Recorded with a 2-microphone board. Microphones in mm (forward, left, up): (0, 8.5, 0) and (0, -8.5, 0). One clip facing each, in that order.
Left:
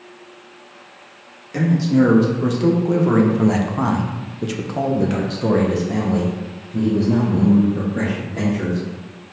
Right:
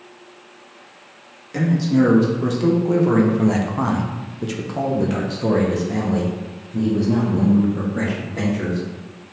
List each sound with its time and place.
1.5 s a man speaking: 5° left (ahead or behind), 1.8 m; by 8.8 s 10° left (ahead or behind), 2.5 m